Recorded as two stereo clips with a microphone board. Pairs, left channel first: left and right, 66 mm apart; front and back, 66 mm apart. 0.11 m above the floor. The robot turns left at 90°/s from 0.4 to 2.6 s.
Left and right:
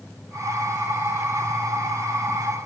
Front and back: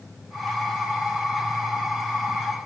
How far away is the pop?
No pop in this recording.